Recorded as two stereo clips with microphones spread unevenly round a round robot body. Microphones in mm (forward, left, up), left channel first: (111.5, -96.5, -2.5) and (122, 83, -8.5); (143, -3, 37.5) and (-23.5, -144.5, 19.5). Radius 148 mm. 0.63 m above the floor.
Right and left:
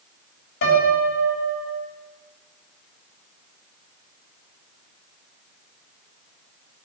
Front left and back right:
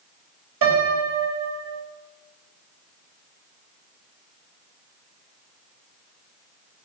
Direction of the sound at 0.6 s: 120° right.